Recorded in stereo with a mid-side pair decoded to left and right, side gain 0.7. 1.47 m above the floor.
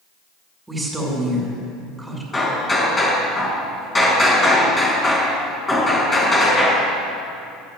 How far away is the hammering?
About 5 m.